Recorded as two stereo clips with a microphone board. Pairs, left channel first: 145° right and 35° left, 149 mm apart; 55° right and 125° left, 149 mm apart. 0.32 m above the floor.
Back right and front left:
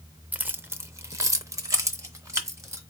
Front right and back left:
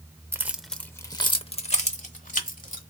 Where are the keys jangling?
95° left, 0.6 m; by 2.8 s 35° right, 1.4 m.